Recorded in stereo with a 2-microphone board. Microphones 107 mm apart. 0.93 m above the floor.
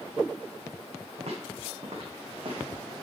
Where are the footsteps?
70° right (ahead or behind), 3 m; by 2.8 s 40° right (ahead or behind), 1.9 m.